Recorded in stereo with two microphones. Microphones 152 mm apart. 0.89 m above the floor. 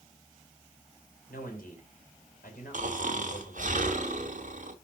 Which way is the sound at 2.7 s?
60° right (ahead or behind).